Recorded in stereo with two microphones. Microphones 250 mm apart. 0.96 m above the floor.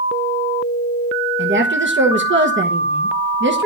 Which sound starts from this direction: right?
A woman speaking, at 1.4 s.